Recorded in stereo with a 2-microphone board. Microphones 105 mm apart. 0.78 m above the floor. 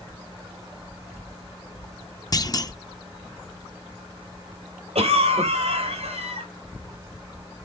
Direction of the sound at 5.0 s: 80° right.